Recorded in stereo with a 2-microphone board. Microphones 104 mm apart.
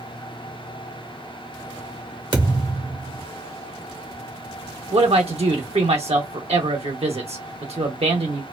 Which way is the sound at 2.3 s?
50° right (ahead or behind).